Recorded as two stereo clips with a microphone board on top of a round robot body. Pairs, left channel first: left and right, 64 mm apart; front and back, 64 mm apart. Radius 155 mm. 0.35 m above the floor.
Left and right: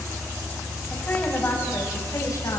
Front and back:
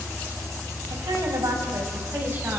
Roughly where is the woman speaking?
Behind.